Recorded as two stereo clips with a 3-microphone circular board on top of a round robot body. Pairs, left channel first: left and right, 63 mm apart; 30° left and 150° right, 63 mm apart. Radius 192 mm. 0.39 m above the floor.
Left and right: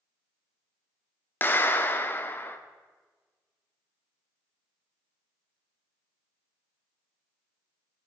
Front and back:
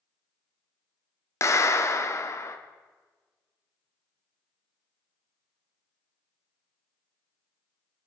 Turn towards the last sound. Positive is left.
turn(degrees=45)